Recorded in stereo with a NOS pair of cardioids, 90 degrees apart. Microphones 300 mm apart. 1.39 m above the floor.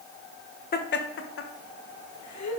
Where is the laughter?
30° left, 1.2 m; by 2.6 s 70° left, 1.7 m.